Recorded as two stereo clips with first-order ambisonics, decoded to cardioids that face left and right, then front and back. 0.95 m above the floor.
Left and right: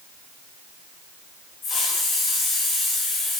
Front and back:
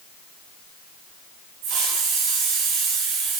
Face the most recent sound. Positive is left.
turn(degrees=160)